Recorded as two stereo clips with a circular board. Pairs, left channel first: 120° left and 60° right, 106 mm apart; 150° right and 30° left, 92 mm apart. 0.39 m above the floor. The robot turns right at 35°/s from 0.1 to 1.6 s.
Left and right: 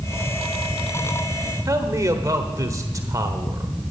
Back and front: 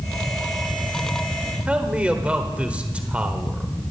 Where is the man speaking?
35° right, 1.2 m.